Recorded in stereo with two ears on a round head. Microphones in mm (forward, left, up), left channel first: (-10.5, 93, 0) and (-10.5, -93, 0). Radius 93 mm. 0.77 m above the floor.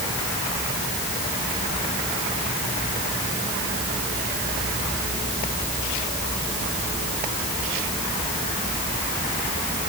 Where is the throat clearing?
I don't hear throat clearing.